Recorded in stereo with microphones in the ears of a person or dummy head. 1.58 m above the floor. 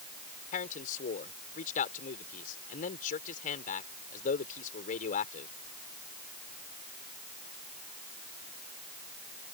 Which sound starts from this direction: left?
A man speaking, at 0.5 s.